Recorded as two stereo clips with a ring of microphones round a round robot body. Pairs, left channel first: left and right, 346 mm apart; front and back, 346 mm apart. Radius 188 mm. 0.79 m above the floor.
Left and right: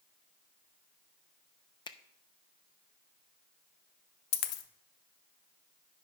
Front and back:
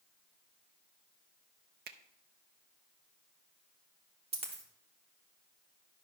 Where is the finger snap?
155° left, 0.6 m.